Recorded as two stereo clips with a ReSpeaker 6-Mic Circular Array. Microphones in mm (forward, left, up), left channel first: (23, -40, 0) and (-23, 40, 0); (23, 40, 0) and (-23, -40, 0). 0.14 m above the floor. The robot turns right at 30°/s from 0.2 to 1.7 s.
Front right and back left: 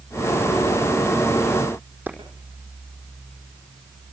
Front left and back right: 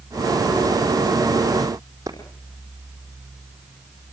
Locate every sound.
2.1 s a clap: 170° right, 5 m